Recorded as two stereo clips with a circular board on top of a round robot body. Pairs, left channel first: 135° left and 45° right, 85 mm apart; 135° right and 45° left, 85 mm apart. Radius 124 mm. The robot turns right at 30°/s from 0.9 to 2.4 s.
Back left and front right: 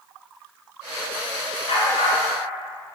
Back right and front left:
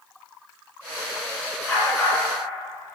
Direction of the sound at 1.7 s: 145° left.